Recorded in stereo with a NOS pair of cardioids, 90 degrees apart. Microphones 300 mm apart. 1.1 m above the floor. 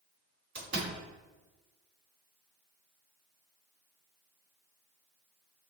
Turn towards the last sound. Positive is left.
turn(degrees=-35)